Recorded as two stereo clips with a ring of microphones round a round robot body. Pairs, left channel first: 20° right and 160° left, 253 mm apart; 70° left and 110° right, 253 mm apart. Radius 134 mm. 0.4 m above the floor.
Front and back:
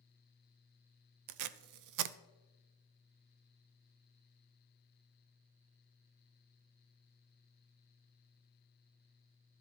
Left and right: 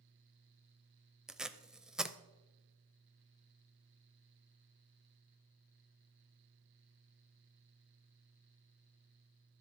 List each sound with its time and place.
1.3 s tape being pulled: 160° left, 0.6 m